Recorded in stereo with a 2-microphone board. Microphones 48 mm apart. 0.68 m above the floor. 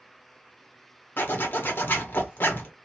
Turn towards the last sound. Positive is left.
turn(degrees=50)  # may be behind; listen again after turning